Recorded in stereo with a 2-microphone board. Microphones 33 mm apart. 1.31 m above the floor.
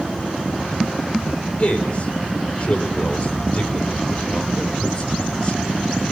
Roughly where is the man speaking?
Left.